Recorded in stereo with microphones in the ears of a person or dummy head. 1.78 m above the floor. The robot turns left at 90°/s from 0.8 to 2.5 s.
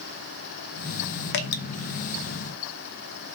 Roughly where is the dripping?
Left.